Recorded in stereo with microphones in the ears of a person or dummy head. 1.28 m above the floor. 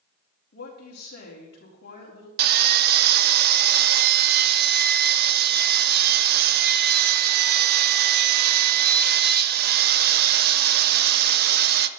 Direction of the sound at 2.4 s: 50° right (ahead or behind).